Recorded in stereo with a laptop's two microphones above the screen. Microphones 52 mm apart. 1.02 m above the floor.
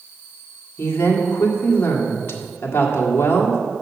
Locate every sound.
0.8 s a woman speaking: 45° left (ahead or behind), 1.8 m